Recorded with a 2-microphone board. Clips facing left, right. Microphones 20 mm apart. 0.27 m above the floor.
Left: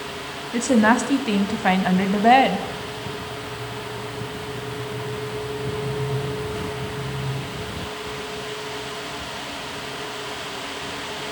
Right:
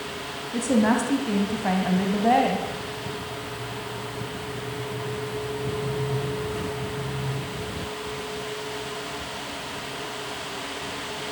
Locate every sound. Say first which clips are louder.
0.5 s a woman speaking: left 4 dB; 55° left (ahead or behind), 2.5 m